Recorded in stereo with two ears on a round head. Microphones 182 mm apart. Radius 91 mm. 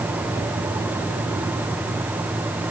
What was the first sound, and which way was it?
Only background noise.